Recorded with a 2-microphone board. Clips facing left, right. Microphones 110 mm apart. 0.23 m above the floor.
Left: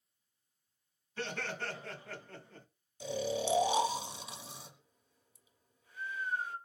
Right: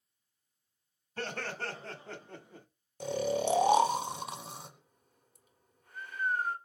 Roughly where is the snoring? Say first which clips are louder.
Right 4 dB; right.